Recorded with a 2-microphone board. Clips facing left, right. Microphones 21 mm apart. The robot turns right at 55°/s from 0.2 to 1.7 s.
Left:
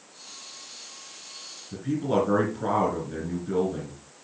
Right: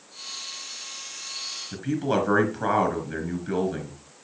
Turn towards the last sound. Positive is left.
turn(degrees=-60)  # may be behind; listen again after turning